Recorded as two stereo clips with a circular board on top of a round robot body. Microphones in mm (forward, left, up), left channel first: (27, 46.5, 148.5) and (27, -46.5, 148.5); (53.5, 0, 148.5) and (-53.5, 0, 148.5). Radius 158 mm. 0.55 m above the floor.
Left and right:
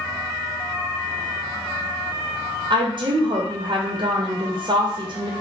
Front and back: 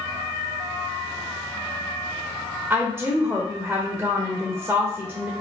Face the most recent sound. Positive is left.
turn(degrees=-105)